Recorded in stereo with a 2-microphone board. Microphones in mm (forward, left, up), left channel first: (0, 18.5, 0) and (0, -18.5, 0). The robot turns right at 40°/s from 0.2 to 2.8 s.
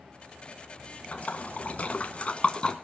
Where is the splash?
40° left (ahead or behind), 1.6 m; by 2.8 s 25° left (ahead or behind), 1.6 m.